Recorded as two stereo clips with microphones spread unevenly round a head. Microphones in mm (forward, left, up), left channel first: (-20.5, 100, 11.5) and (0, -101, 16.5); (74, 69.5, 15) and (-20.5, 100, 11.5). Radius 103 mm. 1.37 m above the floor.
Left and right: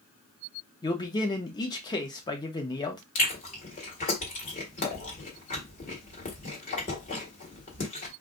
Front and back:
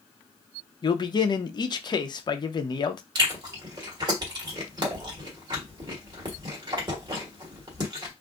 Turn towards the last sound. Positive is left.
turn(degrees=135)